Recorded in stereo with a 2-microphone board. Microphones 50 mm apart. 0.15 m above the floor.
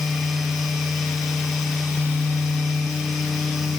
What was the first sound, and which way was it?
Only background noise.